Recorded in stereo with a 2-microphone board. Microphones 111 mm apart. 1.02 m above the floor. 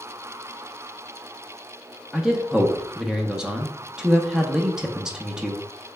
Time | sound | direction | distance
2.1 | a man speaking | 5° right (ahead or behind) | 0.7 m